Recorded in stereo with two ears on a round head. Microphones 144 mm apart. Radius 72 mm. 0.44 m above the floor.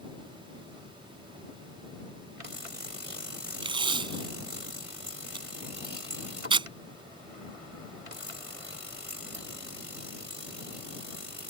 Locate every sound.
3.6 s tape being pulled: 30° right (ahead or behind)